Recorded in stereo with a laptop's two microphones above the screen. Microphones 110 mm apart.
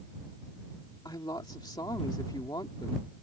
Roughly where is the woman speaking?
Left.